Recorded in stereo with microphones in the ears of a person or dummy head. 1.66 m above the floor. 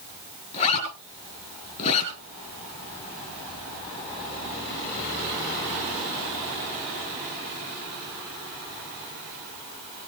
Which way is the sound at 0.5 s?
35° left (ahead or behind).